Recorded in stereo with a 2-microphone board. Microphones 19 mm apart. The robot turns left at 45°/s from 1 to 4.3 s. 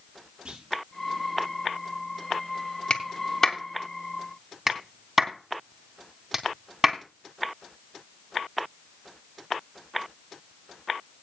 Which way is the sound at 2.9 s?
50° left (ahead or behind).